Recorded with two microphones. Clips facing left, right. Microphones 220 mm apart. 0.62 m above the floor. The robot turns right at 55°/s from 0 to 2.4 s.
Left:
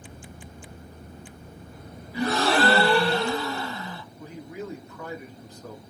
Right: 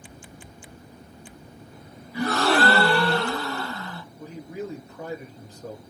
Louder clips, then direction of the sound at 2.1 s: Right 1 dB; 30° left (ahead or behind).